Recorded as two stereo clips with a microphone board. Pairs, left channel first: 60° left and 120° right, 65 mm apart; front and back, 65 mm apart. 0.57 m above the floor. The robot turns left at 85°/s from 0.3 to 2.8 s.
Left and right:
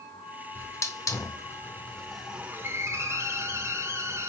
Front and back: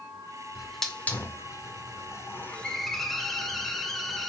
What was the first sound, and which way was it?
A hiss, 105° left.